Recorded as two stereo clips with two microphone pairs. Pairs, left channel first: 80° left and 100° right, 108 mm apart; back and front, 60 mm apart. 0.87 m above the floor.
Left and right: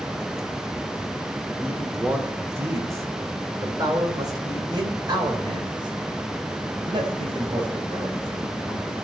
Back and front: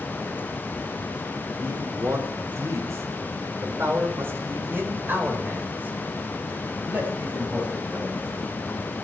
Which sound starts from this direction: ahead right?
A man speaking, at 1.6 s.